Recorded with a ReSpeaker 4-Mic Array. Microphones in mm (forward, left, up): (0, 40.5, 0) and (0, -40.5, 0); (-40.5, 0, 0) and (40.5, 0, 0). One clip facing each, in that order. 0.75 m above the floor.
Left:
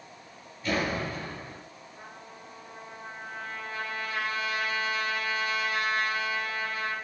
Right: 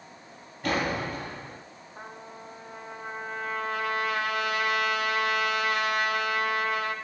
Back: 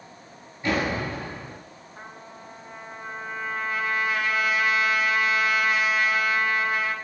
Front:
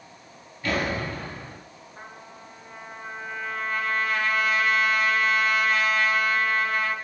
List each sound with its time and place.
0.6 s a door slam: 110° right, 4 m
2.0 s a trumpet: 100° right, 1.8 m